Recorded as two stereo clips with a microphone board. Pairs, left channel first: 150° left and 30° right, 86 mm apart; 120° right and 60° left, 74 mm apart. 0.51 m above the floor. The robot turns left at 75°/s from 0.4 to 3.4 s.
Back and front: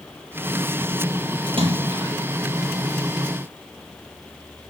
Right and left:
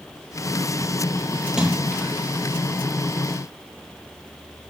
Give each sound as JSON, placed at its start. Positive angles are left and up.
{"t": 1.5, "sound": "a splash", "azimuth_deg": -10, "distance_m": 5.5}